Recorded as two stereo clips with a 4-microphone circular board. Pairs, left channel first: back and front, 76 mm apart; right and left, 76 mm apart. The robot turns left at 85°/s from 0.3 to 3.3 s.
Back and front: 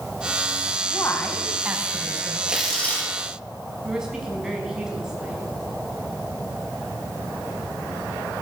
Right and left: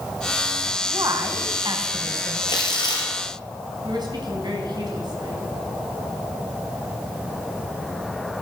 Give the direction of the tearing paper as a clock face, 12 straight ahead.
3 o'clock.